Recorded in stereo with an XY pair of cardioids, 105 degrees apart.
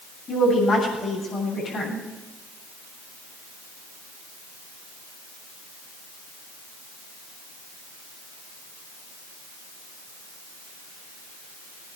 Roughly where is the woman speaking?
Ahead left.